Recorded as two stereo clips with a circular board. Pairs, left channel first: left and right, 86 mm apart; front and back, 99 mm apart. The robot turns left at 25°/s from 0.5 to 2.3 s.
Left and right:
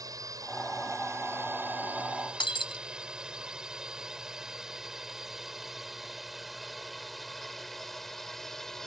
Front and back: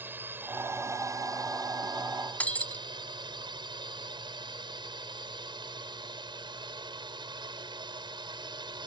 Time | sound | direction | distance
0.0 | a drone | 115° right | ?
2.4 | breaking glass | 75° left | ?